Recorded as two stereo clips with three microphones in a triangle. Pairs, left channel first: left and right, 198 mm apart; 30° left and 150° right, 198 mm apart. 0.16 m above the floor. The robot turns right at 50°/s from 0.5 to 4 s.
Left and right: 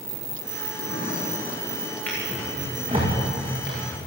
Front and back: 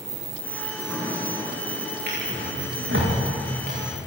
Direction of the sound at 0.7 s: 110° left.